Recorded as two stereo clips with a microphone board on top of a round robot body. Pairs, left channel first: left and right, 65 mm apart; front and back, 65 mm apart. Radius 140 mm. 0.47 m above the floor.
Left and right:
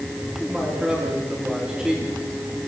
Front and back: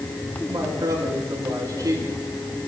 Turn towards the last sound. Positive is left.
turn(degrees=-165)